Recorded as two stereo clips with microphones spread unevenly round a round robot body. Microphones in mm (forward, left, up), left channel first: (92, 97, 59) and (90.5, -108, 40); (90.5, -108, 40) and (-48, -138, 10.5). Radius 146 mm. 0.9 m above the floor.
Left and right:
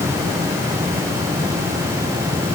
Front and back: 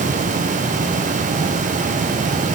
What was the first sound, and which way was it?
Only background noise.